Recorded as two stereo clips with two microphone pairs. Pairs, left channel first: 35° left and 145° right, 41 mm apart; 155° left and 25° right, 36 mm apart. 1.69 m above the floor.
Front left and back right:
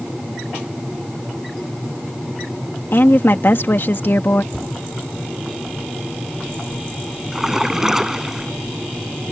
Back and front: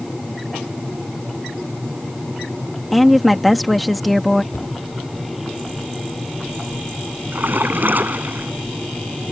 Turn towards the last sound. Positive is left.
turn(degrees=-60)